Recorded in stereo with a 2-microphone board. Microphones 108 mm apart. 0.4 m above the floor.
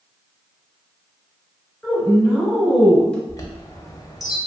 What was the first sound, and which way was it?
A woman speaking, 10° left (ahead or behind).